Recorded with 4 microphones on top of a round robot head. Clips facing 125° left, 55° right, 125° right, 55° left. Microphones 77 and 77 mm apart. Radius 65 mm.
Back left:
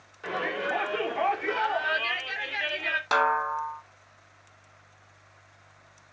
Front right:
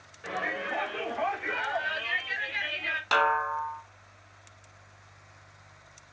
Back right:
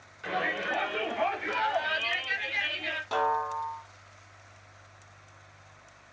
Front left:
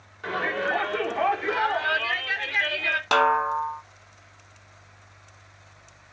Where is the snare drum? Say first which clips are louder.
Even, front left 7 dB; 50° left, 1.0 m.